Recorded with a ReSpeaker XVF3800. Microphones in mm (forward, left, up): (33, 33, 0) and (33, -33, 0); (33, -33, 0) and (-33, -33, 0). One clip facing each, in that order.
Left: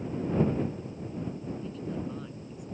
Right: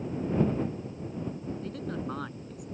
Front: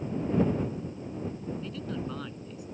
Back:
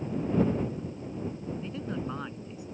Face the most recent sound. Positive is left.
turn(degrees=-115)